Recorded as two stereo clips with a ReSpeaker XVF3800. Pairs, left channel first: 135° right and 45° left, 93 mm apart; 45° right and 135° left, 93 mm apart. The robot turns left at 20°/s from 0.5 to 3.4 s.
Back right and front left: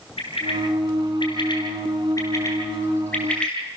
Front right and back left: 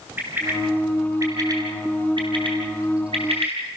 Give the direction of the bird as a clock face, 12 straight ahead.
5 o'clock.